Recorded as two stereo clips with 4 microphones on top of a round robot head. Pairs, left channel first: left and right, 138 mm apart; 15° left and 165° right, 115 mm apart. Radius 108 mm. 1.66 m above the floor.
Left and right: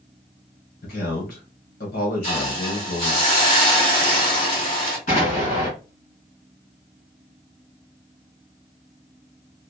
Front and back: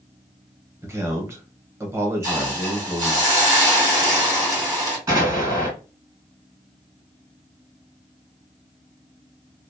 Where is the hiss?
145° left, 2 m.